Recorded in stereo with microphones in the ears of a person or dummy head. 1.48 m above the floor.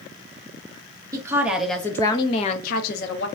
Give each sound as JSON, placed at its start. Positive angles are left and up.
{"t": 1.1, "sound": "a woman speaking", "side_deg": -15, "distance_m": 0.8}